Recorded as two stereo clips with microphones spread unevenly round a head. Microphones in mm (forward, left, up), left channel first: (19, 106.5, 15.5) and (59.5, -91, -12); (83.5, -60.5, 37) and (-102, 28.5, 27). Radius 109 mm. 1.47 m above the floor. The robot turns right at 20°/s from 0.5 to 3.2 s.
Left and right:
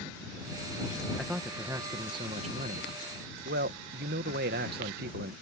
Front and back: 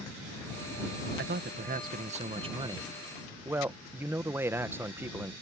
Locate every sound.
1.2 s a man speaking: 165° right; by 5.3 s 125° right